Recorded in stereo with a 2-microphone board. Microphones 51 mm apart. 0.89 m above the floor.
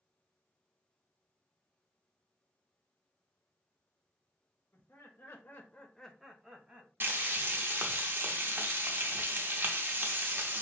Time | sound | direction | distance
4.7 | laughter | 60° left (ahead or behind) | 1.2 m
7.0 | frying | 55° right (ahead or behind) | 0.6 m